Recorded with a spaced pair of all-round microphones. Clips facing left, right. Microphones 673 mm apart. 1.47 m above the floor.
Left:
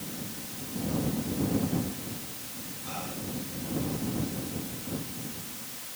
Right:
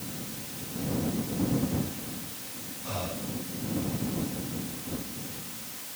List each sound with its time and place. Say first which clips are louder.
2.9 s breathing: right 3 dB; 80° right